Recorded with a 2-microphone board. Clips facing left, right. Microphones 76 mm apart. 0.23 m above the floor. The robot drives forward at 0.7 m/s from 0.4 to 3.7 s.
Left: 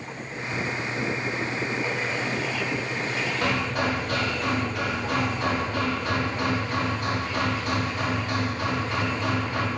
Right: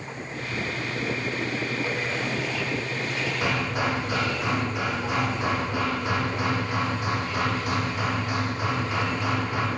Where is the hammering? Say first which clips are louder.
Left 1 dB; 10° right (ahead or behind), 9 m.